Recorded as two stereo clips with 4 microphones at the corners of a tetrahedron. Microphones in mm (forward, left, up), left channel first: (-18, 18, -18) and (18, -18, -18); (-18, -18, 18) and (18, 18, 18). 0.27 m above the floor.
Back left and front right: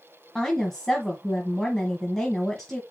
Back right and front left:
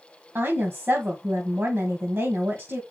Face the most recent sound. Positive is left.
turn(degrees=55)